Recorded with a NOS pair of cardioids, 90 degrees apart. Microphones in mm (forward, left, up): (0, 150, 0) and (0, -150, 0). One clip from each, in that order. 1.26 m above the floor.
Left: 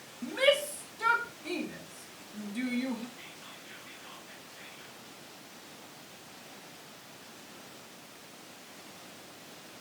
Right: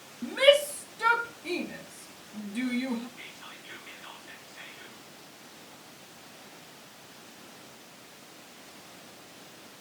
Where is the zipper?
No zipper in this recording.